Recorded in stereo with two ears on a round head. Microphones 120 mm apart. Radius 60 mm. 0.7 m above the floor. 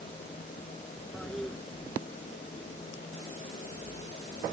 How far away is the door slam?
I don't hear a door slam.